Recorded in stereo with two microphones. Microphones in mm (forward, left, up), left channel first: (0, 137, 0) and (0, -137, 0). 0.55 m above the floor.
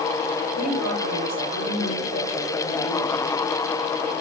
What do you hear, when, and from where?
0.6 s a woman speaking: 75° left (ahead or behind), 8.5 m